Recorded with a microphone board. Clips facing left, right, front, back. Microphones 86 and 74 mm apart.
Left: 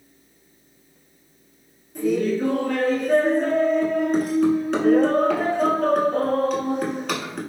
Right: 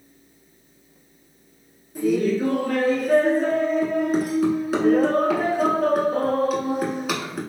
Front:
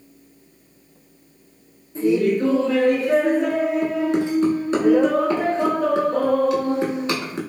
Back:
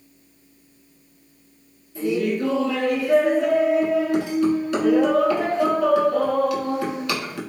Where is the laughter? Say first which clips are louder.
Right 1 dB, front 4 dB; 10° right, 1.1 m.